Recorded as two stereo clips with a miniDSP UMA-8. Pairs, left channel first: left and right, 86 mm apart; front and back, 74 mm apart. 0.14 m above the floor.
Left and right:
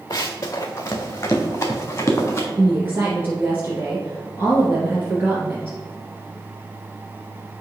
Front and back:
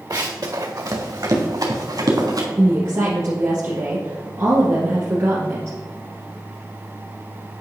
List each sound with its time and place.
0.1 s running footsteps: 140° left, 0.9 m; by 2.5 s 150° left, 2 m
2.6 s a woman speaking: 145° right, 1.9 m